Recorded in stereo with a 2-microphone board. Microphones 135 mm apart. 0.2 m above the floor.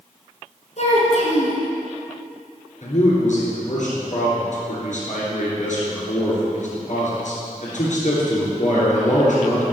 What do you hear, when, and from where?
0.8 s a child speaking: 60° left (ahead or behind), 2.0 m
2.8 s a man speaking: 65° left (ahead or behind), 2.5 m